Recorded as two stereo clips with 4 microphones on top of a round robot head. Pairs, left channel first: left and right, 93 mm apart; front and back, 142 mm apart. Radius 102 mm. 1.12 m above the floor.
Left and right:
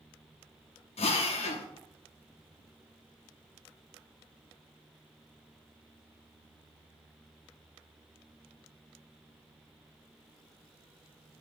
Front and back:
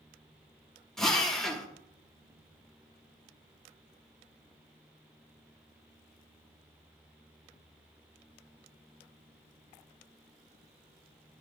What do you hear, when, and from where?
1.0 s a drill: 85° left, 0.7 m